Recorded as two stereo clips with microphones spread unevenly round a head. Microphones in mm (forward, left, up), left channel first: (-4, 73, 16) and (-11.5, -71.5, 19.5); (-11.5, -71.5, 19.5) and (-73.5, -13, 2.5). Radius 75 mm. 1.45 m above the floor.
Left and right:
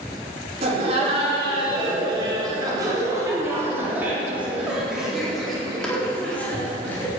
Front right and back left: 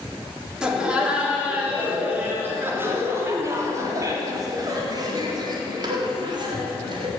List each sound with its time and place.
0.6 s laughter: 140° right, 4 m; by 7.1 s 165° left, 4 m